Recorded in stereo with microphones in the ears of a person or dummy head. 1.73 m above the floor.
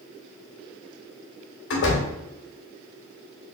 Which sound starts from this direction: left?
A door slam, at 1.7 s.